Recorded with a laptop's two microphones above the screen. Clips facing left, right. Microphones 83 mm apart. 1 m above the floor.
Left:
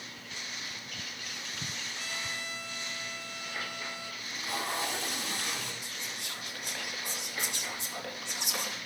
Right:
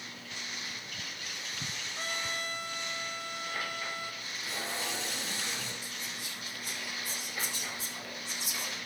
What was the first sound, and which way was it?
A trumpet, 45° right (ahead or behind).